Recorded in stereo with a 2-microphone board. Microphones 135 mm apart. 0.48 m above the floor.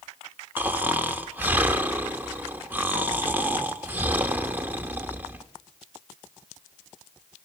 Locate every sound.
0.6 s snoring: 15° right (ahead or behind), 0.8 m